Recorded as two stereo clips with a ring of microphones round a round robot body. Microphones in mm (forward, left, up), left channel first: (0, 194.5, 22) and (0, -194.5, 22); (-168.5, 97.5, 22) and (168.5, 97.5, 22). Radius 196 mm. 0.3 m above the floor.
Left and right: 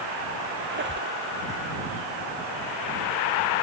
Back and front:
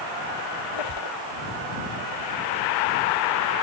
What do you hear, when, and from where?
0.6 s a squeak: 150° right